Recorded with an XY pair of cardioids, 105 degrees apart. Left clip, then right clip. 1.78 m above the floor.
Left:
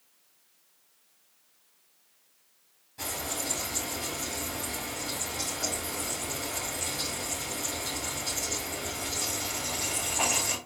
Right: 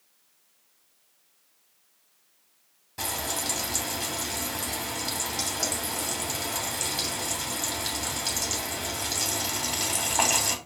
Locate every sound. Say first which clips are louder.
3.0 s frying: right 3 dB; 65° right, 2.5 m